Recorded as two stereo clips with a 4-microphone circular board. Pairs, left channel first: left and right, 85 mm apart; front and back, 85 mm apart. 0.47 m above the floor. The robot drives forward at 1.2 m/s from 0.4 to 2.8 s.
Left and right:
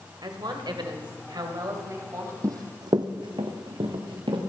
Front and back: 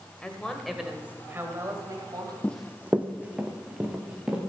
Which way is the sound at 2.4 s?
65° right.